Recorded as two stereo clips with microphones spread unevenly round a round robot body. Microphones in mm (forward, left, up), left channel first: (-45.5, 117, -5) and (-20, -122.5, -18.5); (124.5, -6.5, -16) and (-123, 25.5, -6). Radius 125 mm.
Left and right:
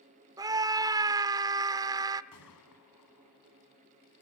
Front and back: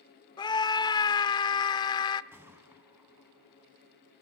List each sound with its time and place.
0.4 s a scream: 45° right, 0.8 m
2.3 s a gunshot: 90° left, 4.5 m